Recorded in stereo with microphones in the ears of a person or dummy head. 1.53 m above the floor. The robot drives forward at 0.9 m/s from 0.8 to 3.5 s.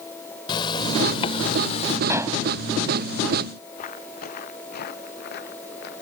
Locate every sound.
0.5 s a zipper: 25° left (ahead or behind); by 2.0 s 35° left (ahead or behind)
2.1 s dishes clattering: 20° right (ahead or behind); by 2.4 s 15° right (ahead or behind)
3.8 s footsteps: 45° left (ahead or behind); by 6.0 s 55° left (ahead or behind)